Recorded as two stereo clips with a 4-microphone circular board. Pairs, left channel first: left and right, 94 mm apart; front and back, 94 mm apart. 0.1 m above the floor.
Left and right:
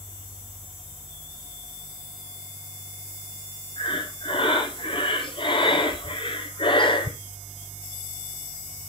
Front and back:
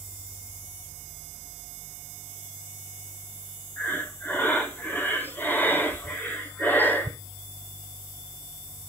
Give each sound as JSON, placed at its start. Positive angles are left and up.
{"t": 3.8, "sound": "breathing", "azimuth_deg": 70, "distance_m": 1.2}